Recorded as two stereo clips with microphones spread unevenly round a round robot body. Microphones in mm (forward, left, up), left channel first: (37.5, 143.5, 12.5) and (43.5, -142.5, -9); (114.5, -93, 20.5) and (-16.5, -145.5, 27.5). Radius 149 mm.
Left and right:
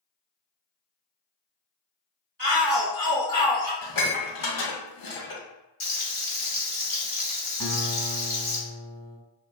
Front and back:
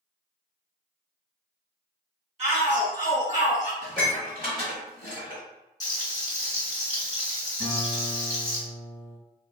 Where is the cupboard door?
I don't hear a cupboard door.